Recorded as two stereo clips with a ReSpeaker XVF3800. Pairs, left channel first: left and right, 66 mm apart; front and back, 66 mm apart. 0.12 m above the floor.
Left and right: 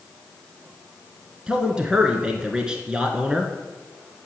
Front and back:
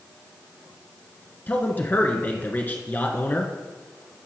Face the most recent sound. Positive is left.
turn(degrees=-25)